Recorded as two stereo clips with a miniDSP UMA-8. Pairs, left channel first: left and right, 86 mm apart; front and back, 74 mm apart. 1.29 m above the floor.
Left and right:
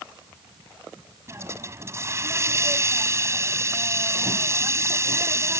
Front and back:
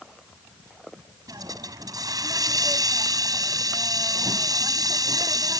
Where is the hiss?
145° right.